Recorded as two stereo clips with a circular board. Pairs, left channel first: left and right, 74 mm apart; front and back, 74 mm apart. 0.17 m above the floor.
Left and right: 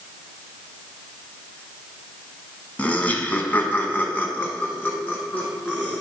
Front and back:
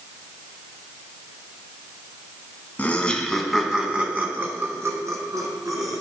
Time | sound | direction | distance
2.8 | laughter | 45° left | 1.1 m